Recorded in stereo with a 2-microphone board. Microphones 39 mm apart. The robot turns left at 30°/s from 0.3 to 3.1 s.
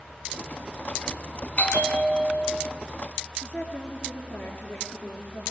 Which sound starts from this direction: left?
A woman speaking, at 3.4 s.